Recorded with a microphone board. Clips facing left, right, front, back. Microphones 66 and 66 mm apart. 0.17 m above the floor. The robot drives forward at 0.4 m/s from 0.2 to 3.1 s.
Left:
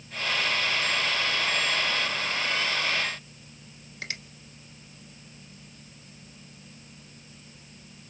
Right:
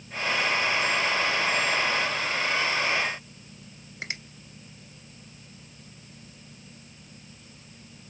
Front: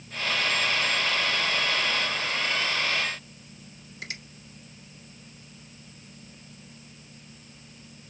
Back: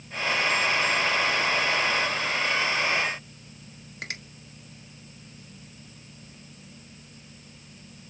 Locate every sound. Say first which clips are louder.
4.0 s a finger snap: right 1 dB, back 2 dB; 155° right, 1.6 m